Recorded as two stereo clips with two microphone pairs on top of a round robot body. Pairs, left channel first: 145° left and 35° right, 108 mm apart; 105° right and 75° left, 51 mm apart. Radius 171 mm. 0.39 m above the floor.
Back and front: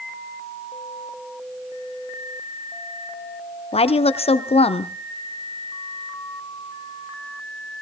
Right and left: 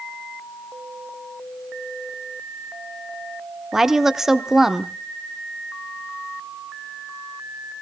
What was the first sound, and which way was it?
A woman speaking, 150° left.